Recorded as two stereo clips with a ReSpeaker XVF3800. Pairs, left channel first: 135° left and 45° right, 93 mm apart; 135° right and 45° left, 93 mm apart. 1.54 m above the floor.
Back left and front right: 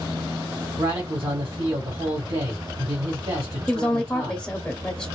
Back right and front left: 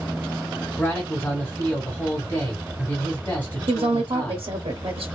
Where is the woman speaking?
55° left, 0.6 m.